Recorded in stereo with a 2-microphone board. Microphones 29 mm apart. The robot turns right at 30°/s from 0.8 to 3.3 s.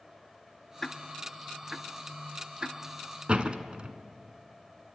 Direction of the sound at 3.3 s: 35° right (ahead or behind).